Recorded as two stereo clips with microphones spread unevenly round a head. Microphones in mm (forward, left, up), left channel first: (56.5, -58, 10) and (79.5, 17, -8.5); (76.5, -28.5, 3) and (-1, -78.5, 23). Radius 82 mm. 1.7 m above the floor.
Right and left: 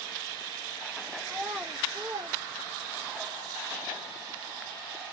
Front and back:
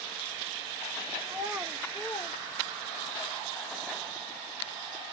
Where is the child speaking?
175° right, 0.7 m; by 3.2 s 65° left, 0.9 m.